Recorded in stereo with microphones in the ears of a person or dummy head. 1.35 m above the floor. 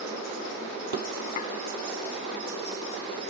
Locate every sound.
1.4 s dishes clattering: 40° left (ahead or behind), 0.5 m